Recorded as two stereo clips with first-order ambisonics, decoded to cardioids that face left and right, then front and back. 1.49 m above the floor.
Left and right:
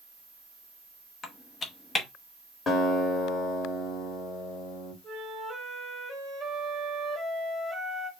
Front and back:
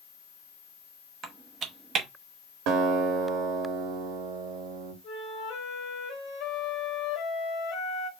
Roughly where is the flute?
Ahead.